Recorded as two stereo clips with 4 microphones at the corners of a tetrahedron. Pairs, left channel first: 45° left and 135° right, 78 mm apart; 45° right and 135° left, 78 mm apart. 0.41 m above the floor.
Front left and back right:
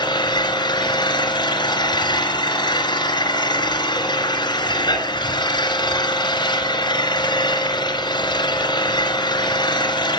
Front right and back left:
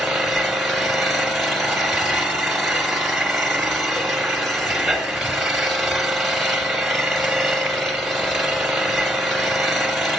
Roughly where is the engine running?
Ahead left.